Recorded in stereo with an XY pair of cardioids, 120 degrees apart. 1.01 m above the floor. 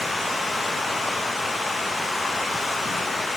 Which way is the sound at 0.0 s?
10° left.